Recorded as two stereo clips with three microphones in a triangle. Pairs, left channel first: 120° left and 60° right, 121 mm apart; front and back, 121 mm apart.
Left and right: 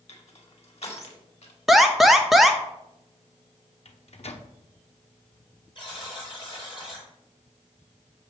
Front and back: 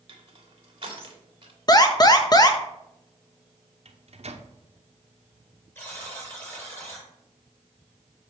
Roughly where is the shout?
No shout in this recording.